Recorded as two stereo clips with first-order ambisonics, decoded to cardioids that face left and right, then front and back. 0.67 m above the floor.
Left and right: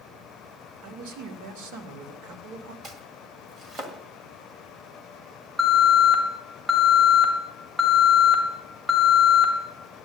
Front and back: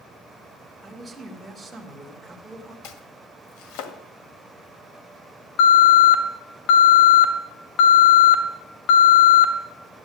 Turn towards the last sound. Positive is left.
turn(degrees=-5)